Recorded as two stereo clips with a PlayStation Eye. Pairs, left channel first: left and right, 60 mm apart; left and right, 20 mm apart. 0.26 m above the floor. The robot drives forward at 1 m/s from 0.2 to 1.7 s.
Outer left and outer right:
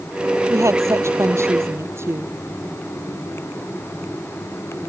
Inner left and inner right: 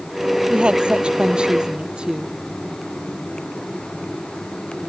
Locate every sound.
0.5 s a woman speaking: 55° right (ahead or behind); by 2.3 s 50° right (ahead or behind)